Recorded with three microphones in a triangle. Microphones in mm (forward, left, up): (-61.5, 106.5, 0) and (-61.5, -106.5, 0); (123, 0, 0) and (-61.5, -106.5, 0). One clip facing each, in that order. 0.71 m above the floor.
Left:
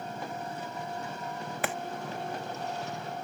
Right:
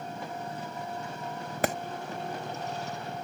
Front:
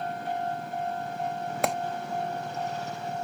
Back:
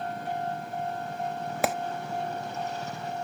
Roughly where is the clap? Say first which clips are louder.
Right 6 dB, even; ahead right.